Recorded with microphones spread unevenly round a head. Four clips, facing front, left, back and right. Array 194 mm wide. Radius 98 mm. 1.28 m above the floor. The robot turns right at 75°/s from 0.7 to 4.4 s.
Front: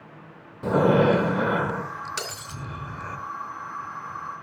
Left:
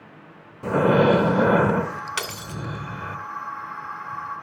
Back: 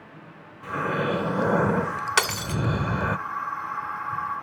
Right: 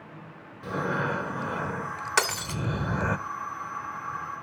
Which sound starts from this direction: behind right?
Breaking glass, at 2.2 s.